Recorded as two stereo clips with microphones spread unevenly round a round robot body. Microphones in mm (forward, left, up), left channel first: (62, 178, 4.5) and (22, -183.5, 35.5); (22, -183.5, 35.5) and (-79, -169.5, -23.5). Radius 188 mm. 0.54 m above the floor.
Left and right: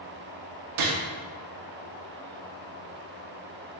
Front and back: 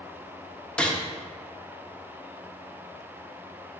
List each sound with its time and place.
0.8 s a gunshot: 125° right, 0.6 m